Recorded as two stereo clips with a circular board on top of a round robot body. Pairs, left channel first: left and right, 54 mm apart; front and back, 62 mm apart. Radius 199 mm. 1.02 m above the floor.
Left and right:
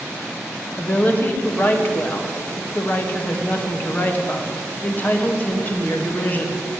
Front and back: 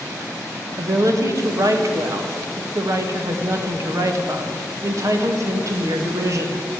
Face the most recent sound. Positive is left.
turn(degrees=145)